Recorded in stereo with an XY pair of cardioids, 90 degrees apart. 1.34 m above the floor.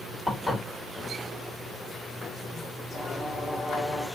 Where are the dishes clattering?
20° left, 3.5 m.